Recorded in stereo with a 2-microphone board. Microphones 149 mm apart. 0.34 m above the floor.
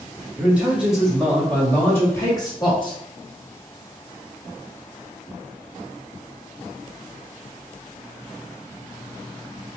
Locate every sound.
0.4 s a man speaking: 15° right (ahead or behind), 1.7 m; by 3.0 s 35° left (ahead or behind), 1.6 m